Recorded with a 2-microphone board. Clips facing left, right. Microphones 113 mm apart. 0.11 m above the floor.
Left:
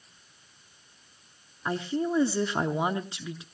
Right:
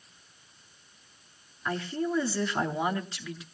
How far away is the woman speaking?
About 1.2 m.